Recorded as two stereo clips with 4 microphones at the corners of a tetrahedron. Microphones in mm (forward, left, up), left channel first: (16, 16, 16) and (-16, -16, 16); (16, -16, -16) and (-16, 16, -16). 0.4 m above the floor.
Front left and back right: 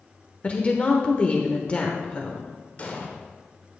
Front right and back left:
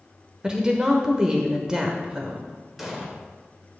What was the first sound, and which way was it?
A woman speaking, 80° left.